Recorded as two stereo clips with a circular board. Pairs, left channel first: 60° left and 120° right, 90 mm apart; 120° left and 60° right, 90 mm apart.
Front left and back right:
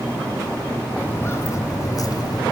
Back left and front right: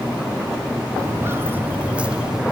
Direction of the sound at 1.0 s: 5° right.